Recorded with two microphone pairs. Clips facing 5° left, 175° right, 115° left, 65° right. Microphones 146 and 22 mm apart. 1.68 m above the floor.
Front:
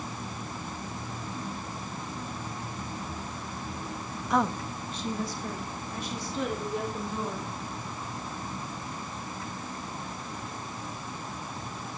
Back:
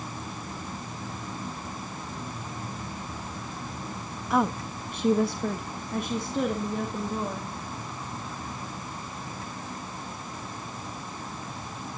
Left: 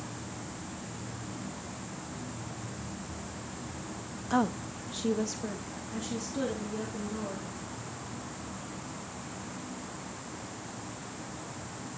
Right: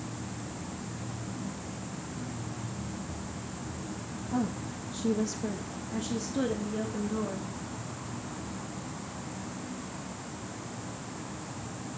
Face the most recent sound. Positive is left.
turn(degrees=-135)